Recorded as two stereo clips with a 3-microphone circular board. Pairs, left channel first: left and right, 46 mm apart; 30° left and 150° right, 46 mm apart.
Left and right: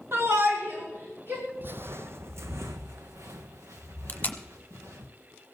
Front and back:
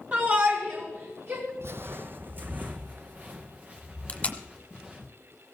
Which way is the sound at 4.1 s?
70° left.